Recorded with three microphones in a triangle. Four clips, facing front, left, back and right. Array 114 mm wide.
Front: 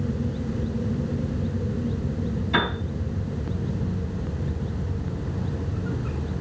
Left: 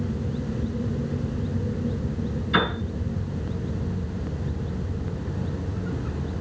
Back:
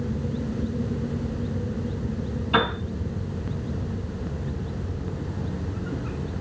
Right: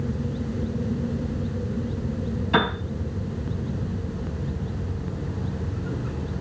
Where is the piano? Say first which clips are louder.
Right 2 dB, back 3 dB; 105° right, 5 m.